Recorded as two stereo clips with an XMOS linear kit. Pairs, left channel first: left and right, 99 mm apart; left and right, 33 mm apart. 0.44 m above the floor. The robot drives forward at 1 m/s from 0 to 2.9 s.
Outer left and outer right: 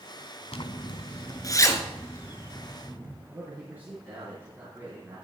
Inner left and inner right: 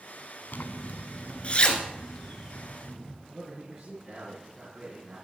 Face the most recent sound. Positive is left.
turn(degrees=-20)  # may be behind; listen again after turning